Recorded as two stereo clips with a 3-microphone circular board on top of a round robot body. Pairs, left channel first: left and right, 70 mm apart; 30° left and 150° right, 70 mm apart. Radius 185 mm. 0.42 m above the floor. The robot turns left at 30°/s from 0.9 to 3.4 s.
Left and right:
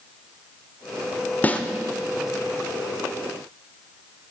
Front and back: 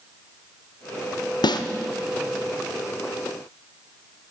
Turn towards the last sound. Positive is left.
turn(degrees=-35)